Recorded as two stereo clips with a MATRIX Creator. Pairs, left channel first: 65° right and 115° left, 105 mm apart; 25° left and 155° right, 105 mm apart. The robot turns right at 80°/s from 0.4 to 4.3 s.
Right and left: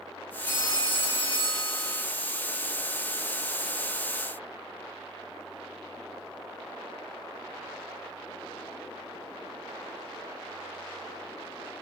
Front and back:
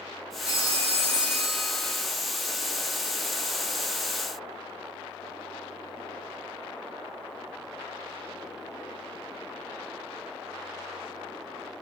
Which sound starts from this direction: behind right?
A phone ringing, at 0.5 s.